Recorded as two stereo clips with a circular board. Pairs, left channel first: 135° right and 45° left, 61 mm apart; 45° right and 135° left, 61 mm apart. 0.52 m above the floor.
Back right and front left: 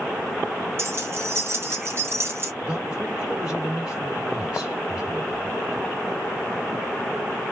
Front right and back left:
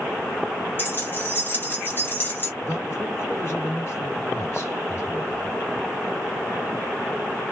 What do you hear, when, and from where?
0.8 s keys jangling: 5° left, 0.8 m
2.6 s a man speaking: 30° right, 1.8 m